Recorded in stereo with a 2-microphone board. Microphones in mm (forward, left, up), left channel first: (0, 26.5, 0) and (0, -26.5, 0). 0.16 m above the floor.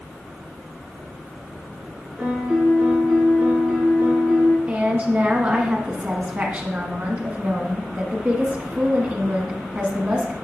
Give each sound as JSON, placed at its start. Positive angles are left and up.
{"t": 2.2, "sound": "a piano", "side_deg": -10, "distance_m": 2.5}
{"t": 4.7, "sound": "a woman speaking", "side_deg": -30, "distance_m": 1.3}